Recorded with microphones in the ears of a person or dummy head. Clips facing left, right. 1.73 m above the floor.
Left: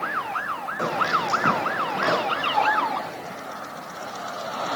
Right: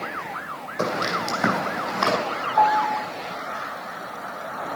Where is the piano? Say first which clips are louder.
Right 5 dB; 75° right (ahead or behind), 2.0 m.